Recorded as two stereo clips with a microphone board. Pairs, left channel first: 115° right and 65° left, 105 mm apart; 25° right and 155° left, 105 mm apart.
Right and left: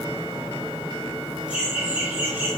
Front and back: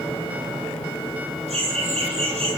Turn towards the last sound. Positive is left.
turn(degrees=140)